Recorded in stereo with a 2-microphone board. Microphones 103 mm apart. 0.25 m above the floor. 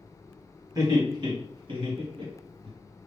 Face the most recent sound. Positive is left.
turn(degrees=-65)  # may be behind; listen again after turning